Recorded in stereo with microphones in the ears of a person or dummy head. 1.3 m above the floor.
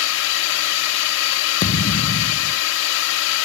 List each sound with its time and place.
0.0 s a drone: 75° left (ahead or behind)
1.6 s a thud: 30° left (ahead or behind)